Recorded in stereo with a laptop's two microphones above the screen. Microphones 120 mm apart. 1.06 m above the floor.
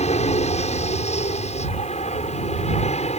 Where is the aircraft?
65° left (ahead or behind).